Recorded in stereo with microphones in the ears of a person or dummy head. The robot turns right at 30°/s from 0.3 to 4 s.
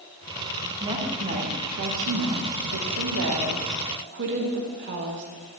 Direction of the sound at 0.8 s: 160° right.